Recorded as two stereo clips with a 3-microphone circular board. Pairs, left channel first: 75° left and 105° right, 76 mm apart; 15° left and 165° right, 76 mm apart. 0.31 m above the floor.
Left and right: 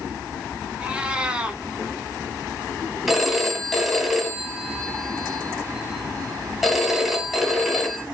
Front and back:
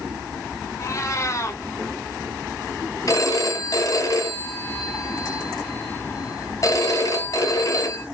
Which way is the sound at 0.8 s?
30° right.